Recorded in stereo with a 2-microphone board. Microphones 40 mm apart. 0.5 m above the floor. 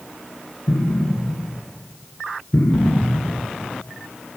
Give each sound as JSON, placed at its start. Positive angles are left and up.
{"t": 0.7, "sound": "an explosion", "side_deg": 90, "distance_m": 3.5}